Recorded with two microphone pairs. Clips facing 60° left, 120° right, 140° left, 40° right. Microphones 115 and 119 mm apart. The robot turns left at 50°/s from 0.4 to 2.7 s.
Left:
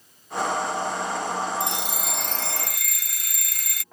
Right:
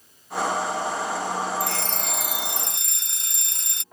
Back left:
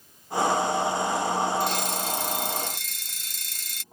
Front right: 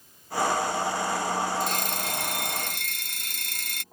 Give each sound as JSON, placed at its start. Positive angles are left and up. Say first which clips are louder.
{"t": 1.6, "sound": "a fire alarm", "louder": "right 1 dB, back left 2 dB", "azimuth_deg": 0}